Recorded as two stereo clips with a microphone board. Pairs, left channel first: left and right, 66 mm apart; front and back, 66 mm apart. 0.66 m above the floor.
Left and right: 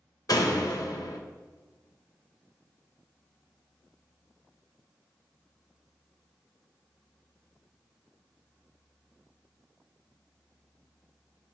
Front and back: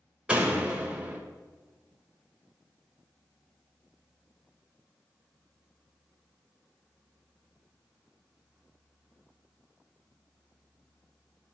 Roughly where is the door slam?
Left.